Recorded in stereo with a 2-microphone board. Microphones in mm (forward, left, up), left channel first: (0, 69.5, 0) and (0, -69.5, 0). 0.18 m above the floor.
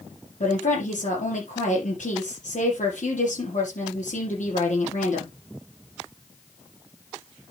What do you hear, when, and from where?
0.4 s a woman speaking: 75° left (ahead or behind), 5.5 m